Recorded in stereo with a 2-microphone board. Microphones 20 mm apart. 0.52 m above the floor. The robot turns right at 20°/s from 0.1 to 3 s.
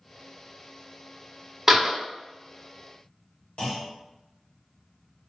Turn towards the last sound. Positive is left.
turn(degrees=70)  # may be behind; listen again after turning